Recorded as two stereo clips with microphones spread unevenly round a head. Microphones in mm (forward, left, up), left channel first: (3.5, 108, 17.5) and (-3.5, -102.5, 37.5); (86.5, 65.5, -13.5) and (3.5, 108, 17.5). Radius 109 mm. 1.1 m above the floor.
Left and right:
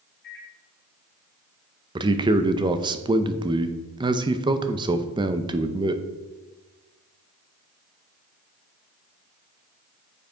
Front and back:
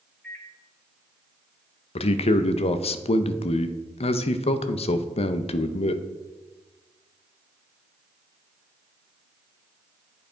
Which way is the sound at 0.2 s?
55° left.